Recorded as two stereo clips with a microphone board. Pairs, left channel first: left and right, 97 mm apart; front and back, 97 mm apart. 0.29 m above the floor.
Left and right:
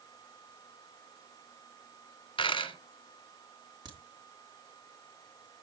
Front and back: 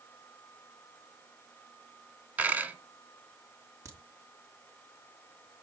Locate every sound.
2.4 s a dropped coin: 105° left, 1.5 m
3.9 s a crack: 125° right, 3 m